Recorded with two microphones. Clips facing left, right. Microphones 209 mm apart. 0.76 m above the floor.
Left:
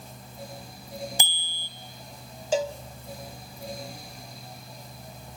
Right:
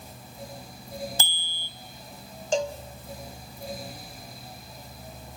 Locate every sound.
1.2 s a bicycle bell: 15° left (ahead or behind), 3.5 m
2.5 s a cowbell: 5° left (ahead or behind), 0.8 m